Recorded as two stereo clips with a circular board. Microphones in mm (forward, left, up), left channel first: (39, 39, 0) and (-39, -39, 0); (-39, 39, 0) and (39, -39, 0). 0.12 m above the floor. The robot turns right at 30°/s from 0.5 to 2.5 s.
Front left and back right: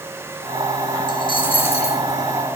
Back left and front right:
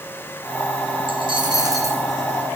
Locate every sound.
1.1 s a dropped coin: 5° right, 3 m; by 2.0 s 25° left, 3 m